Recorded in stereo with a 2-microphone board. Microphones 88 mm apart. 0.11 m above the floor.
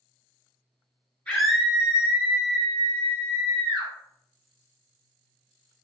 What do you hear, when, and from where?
1.3 s a scream: 15° left (ahead or behind), 1.7 m; by 3.9 s 65° right (ahead or behind), 3 m